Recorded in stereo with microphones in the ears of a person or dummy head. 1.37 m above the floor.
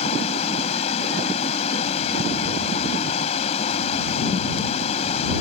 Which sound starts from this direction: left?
Running water, at 0.0 s.